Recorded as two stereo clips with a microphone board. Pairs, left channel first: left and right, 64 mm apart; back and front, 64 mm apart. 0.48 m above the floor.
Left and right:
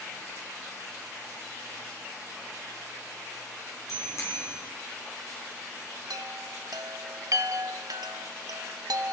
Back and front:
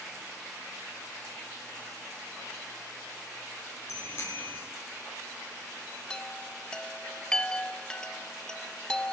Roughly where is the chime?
Right.